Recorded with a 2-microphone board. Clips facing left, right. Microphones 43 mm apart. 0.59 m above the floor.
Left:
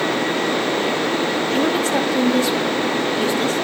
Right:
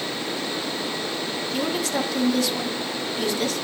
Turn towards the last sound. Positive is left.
turn(degrees=30)  # may be behind; listen again after turning